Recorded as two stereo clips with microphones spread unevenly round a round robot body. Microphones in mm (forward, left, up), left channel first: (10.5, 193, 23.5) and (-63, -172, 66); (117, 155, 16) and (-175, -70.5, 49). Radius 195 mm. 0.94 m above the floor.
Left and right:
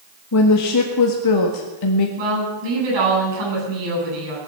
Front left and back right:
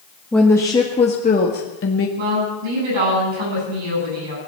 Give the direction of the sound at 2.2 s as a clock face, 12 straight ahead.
4 o'clock.